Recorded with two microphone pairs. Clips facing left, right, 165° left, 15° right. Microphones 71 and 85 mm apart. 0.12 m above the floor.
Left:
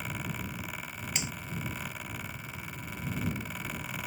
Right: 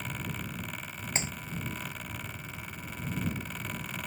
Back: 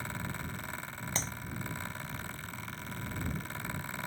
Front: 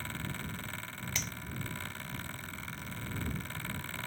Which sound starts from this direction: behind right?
A clap, at 1.1 s.